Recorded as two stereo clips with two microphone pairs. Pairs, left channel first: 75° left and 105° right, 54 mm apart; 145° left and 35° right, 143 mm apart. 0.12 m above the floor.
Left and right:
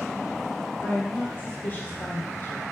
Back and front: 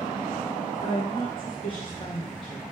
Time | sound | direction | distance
0.8 | a woman speaking | 115° left | 2.0 m